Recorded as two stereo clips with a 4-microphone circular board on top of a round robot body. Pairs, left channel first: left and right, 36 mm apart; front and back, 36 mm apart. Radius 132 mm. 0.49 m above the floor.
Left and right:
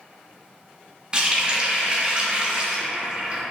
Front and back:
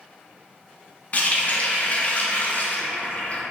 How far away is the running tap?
About 0.6 m.